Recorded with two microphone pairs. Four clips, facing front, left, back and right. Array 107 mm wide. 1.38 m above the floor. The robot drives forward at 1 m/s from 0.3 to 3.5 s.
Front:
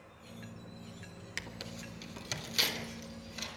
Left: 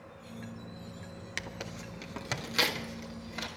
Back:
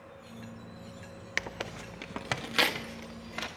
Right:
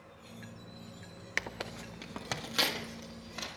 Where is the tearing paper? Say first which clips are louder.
Right 3 dB, back 8 dB; 145° right, 0.6 m; by 3.5 s 175° right, 2.5 m.